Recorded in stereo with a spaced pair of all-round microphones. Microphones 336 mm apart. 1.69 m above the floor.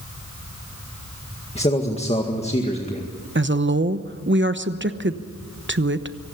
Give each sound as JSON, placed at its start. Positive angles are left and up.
{"t": 1.6, "sound": "a man speaking", "side_deg": 20, "distance_m": 1.9}
{"t": 3.4, "sound": "a woman speaking", "side_deg": -35, "distance_m": 1.0}